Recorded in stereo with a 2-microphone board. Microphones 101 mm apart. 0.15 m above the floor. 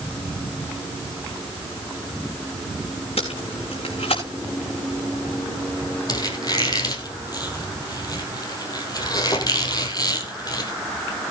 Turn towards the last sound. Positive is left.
turn(degrees=40)  # may be behind; listen again after turning